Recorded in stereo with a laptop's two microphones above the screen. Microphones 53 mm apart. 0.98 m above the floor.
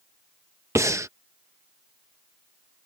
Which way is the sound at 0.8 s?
65° right (ahead or behind).